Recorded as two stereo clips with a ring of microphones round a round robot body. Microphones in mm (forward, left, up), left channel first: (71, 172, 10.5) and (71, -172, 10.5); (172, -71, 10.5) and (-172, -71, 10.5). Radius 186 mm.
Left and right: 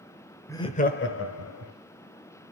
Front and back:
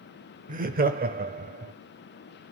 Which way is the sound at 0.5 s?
160° left.